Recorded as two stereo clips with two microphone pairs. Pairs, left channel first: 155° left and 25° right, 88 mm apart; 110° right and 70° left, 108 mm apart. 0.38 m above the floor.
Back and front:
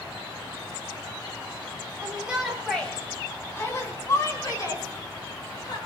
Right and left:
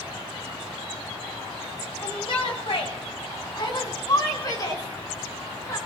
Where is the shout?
85° right, 1.8 m; by 5.8 s 170° right, 5.5 m.